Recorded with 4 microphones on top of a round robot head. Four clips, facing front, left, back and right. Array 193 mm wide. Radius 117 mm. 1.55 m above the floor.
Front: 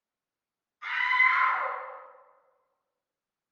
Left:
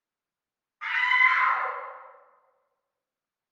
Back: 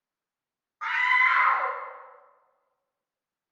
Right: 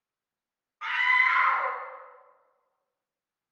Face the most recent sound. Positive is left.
turn(degrees=175)